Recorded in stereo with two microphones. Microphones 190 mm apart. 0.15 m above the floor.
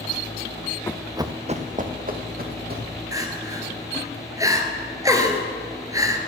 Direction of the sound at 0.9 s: 15° left (ahead or behind).